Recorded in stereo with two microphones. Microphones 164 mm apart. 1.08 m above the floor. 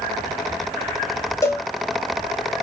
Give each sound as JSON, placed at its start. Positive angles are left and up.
{"t": 1.4, "sound": "a cowbell", "side_deg": 20, "distance_m": 0.7}